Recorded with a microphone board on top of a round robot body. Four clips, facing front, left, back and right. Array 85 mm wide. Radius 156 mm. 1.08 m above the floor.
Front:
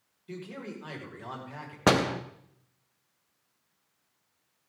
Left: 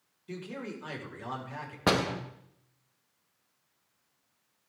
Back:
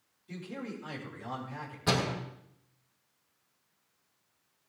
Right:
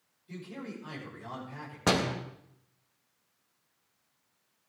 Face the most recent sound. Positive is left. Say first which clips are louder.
# left 1 dB, front 7 dB
turn(degrees=10)